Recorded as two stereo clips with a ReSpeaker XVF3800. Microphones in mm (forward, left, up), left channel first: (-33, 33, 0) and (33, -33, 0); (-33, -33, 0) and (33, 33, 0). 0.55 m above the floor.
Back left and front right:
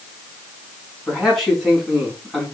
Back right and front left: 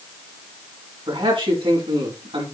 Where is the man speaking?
45° left, 5.5 m.